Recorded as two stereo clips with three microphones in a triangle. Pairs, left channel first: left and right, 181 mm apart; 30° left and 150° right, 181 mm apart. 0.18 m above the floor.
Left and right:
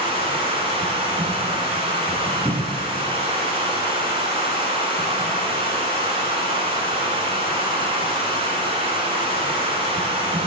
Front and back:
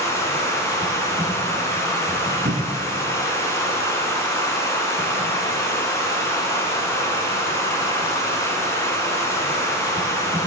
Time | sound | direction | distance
0.0 | running water | 40° right | 1.1 m
2.5 | a cupboard door | 170° right | 0.8 m